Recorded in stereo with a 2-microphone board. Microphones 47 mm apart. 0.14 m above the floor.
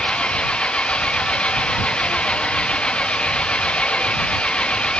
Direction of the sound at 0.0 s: 20° left (ahead or behind).